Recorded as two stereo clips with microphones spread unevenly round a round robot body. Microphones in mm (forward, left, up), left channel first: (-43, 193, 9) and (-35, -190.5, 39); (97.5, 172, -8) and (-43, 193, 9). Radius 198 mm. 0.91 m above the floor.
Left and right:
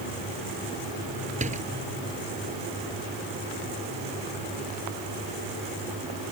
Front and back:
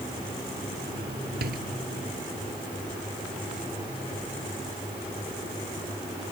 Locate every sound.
1.4 s a door slam: 160° right